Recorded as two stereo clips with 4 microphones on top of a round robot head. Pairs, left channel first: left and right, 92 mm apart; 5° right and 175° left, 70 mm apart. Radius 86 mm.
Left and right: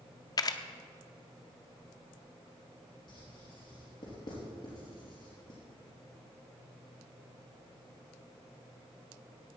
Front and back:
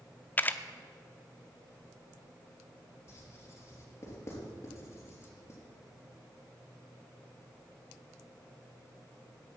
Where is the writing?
45° left, 4 m.